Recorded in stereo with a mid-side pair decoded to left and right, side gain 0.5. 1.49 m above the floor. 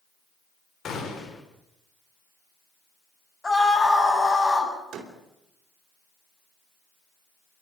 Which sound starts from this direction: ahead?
A scream, at 3.4 s.